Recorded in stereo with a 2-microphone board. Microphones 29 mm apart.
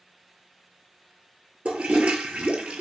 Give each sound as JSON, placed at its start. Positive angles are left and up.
{"t": 1.6, "sound": "a toilet flushing", "side_deg": -50, "distance_m": 0.6}